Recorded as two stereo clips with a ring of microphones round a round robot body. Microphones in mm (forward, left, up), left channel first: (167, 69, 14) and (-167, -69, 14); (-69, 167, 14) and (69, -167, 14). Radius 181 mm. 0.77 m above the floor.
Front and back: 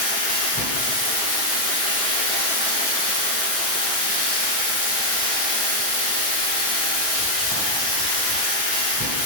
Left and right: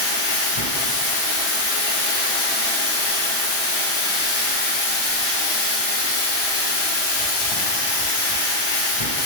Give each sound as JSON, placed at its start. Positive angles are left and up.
{"t": 0.0, "sound": "running water", "azimuth_deg": 100, "distance_m": 5.0}